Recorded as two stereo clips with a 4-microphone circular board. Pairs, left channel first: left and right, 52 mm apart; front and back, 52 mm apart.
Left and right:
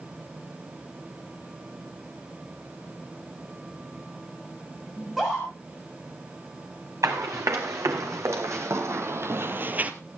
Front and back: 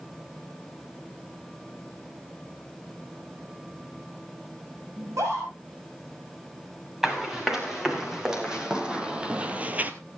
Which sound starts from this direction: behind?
A scream, at 5.0 s.